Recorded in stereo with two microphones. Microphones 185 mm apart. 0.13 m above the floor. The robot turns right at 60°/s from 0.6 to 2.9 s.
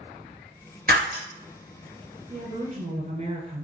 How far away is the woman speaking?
About 1.6 m.